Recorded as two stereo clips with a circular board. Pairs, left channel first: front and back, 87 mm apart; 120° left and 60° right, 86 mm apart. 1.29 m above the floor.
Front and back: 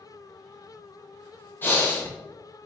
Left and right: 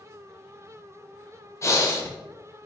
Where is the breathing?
65° left, 0.6 m.